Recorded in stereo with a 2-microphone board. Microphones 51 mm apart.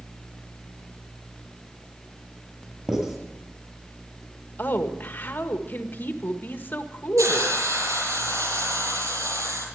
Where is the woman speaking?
40° left (ahead or behind), 1.6 m.